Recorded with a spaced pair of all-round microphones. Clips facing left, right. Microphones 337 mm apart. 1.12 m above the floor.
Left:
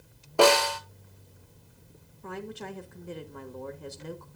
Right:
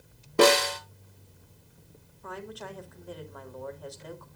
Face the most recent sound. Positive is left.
turn(degrees=30)  # may be behind; listen again after turning